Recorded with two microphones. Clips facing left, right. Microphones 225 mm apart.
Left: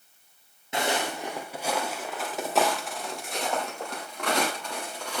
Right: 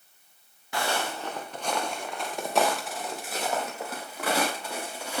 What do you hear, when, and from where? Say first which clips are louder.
0.7 s footsteps: left 2 dB; 20° left (ahead or behind), 2 m; by 5.2 s 10° right (ahead or behind), 7.5 m